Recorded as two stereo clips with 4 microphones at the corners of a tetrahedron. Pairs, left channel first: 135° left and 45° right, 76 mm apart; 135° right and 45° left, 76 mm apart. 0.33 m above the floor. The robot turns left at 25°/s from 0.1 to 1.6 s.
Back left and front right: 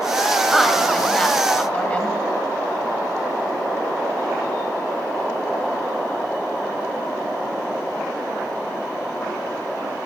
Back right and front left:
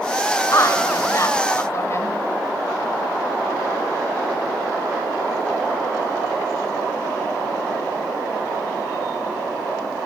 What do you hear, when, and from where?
0.5 s a woman speaking: 135° right, 1.4 m; by 2.1 s 160° right, 1.4 m